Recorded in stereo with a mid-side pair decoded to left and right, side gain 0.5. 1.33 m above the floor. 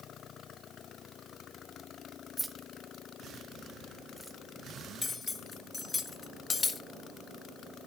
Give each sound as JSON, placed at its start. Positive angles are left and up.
{"t": 2.4, "sound": "keys jangling", "azimuth_deg": -10, "distance_m": 1.2}
{"t": 5.0, "sound": "cutlery clinking", "azimuth_deg": 30, "distance_m": 1.2}